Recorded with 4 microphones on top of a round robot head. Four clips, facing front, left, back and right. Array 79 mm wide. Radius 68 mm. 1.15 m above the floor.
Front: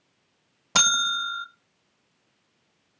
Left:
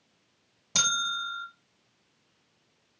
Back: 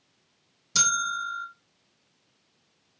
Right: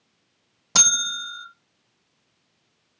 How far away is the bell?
About 0.6 m.